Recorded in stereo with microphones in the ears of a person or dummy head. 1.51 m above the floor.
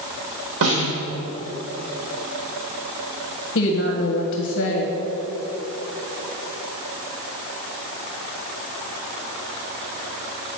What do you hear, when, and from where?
0.6 s a snare drum: 70° right (ahead or behind), 3 m
3.5 s a woman speaking: 65° left (ahead or behind), 1.5 m